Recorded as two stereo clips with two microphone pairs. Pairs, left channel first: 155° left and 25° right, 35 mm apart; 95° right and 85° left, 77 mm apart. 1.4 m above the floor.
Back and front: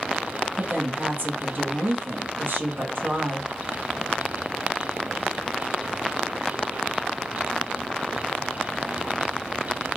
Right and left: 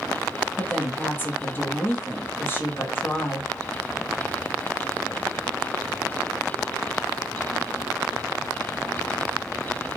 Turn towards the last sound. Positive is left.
turn(degrees=-35)